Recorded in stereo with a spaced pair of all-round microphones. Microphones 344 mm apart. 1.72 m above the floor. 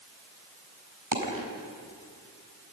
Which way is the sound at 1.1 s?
75° right (ahead or behind).